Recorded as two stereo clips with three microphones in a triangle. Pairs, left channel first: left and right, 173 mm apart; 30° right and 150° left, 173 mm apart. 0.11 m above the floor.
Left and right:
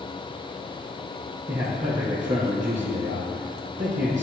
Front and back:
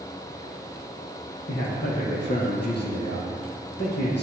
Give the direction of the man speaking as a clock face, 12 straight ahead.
1 o'clock.